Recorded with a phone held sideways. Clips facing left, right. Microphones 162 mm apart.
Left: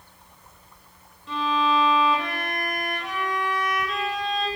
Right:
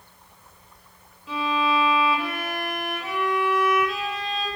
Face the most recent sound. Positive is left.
turn(degrees=-5)  # may be behind; listen again after turning